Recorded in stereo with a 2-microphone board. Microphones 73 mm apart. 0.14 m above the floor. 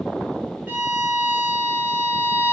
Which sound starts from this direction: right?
A violin, at 0.7 s.